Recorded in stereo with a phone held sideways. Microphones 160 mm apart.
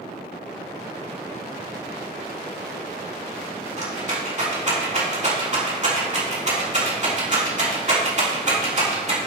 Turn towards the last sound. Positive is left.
turn(degrees=-45)  # may be behind; listen again after turning